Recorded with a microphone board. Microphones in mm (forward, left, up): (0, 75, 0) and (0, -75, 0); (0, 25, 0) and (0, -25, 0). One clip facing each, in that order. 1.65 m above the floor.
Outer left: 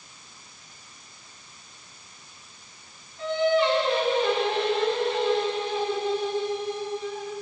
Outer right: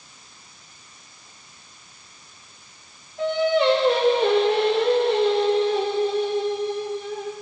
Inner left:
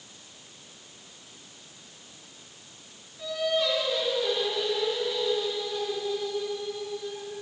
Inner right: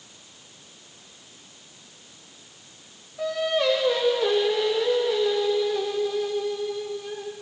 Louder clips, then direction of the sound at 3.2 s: Outer right 2 dB, inner right 3 dB; 70° right (ahead or behind).